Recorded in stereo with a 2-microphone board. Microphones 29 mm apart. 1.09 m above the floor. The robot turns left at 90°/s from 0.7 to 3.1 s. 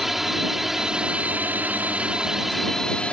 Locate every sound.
0.0 s a drone: 10° right; by 3.1 s 135° left